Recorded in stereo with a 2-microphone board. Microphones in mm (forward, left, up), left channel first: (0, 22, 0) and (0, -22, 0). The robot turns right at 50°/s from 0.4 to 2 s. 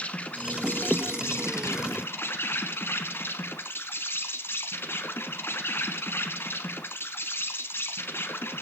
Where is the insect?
35° left, 1.3 m; by 8.6 s 115° left, 1.3 m.